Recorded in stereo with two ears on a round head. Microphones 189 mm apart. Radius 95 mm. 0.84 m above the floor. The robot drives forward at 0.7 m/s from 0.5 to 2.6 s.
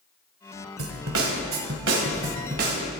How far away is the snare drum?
About 1.7 m.